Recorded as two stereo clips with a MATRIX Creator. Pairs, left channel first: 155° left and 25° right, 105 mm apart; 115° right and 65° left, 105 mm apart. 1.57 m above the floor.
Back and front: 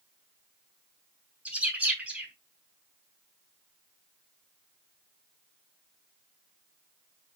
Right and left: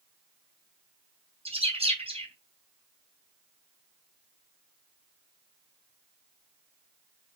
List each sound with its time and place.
1.4 s a bird: 55° left, 3.5 m